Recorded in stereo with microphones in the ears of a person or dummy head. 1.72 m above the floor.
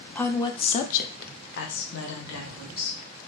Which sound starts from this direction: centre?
A woman speaking, at 0.1 s.